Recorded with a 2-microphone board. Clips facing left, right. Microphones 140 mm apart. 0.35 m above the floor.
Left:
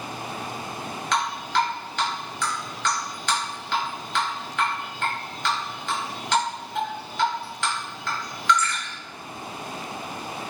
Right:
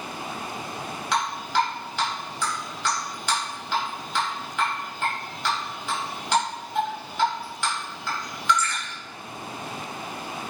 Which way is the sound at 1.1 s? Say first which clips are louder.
Even; 10° right (ahead or behind).